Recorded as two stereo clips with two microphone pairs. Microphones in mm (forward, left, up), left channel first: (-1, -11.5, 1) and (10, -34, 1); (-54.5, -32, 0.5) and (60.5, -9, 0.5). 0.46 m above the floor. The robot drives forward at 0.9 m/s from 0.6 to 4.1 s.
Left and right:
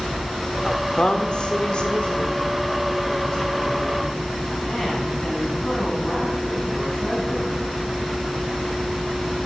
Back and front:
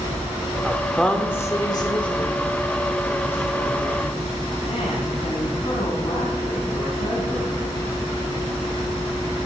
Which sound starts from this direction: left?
A woman speaking, at 0.6 s.